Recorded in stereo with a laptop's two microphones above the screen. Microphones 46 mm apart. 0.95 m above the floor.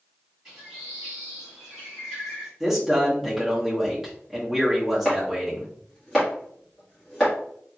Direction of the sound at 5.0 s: 5° left (ahead or behind).